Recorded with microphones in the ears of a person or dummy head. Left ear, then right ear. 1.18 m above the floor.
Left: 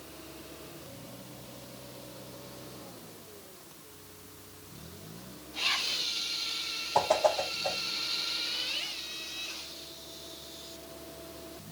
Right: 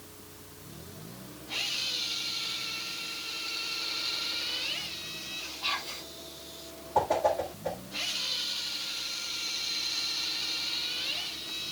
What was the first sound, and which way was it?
Whispering, 25° left (ahead or behind).